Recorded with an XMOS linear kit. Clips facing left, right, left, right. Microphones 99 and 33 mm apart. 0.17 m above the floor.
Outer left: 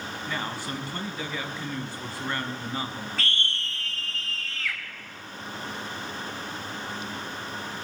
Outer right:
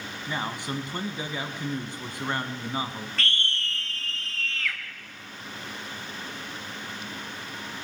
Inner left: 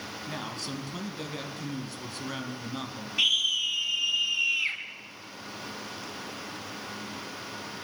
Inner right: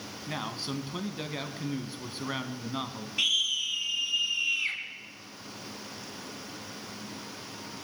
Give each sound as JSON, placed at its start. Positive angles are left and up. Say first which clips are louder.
{"t": 0.3, "sound": "a man speaking", "louder": "outer right 2 dB, inner right 3 dB", "side_deg": -20, "distance_m": 1.2}
{"t": 3.2, "sound": "a scream", "louder": "outer right 2 dB, inner left 2 dB", "side_deg": 5, "distance_m": 1.4}